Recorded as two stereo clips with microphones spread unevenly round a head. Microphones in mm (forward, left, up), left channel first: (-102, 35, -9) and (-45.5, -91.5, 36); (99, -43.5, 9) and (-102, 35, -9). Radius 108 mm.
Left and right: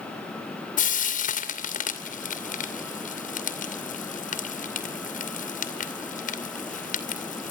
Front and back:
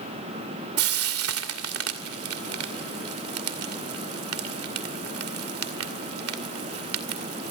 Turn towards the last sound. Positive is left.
turn(degrees=135)